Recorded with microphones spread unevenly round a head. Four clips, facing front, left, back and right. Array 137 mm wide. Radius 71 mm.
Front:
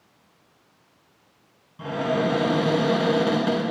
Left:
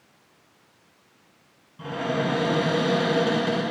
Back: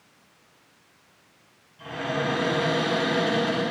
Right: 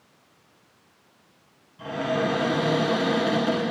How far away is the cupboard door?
About 6 m.